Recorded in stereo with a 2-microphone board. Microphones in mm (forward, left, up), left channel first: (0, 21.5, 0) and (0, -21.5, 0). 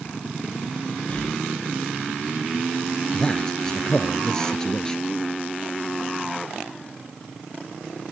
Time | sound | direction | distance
1.1 | breathing | 30° left (ahead or behind) | ?
3.1 | a man speaking | 15° left (ahead or behind) | ?